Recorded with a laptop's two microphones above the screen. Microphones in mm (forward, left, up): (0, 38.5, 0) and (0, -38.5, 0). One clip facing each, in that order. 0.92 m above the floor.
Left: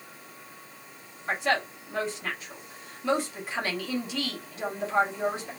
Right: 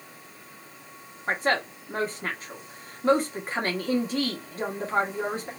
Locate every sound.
1.3 s a woman speaking: 40° right (ahead or behind), 1.2 m